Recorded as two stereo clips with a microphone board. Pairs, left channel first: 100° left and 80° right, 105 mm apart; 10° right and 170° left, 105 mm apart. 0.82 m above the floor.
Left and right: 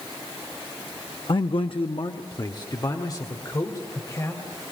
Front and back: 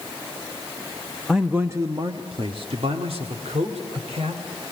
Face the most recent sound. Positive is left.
turn(degrees=160)